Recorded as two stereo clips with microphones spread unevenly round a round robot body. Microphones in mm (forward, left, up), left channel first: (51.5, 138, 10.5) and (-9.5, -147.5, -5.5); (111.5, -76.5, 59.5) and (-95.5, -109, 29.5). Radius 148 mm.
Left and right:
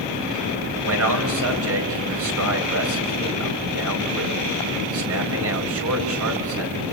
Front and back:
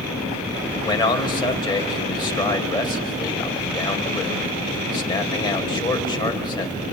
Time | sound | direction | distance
0.8 | a man speaking | 60° right | 4.5 m